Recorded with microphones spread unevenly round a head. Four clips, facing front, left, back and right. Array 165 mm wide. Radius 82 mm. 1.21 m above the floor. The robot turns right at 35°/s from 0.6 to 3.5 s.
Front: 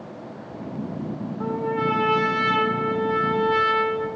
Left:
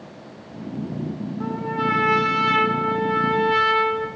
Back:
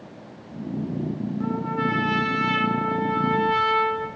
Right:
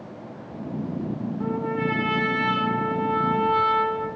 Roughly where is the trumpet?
Ahead.